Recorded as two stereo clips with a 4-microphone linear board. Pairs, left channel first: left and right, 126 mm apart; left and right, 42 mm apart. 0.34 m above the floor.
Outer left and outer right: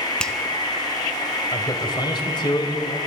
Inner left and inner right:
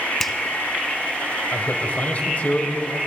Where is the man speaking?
35° left (ahead or behind), 1.7 m.